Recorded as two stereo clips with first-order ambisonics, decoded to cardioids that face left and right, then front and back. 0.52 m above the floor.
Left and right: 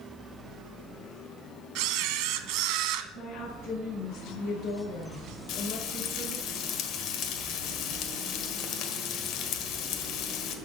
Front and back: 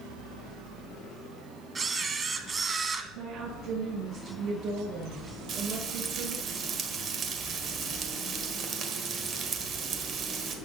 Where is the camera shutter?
110° right, 1.0 m.